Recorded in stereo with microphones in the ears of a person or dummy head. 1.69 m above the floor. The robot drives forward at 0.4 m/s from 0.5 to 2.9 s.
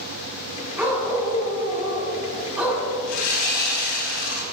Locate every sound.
0.8 s a dog barking: 5° right (ahead or behind), 7.5 m
3.1 s sawing: 70° left (ahead or behind), 5 m